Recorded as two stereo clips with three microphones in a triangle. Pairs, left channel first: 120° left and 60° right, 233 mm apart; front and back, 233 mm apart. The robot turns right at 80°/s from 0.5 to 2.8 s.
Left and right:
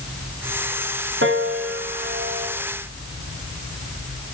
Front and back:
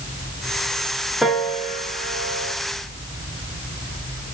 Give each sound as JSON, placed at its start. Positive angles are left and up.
{"t": 1.2, "sound": "a piano", "azimuth_deg": -90, "distance_m": 2.5}